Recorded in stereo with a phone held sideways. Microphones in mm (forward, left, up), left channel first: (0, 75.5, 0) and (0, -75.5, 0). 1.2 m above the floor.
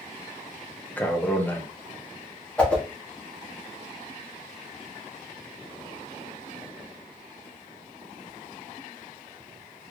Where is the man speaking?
10° left (ahead or behind), 0.8 m.